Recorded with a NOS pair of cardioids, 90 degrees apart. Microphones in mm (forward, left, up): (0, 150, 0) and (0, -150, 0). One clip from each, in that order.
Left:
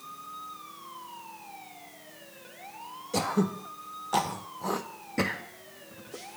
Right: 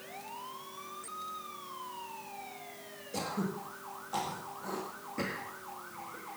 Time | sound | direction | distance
3.1 | throat clearing | 60° left | 1.6 m